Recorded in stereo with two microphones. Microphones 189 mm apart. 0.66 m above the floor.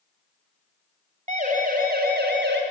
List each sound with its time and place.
1.3 s a siren: 40° right (ahead or behind), 3.5 m; by 2.6 s 65° right (ahead or behind), 3 m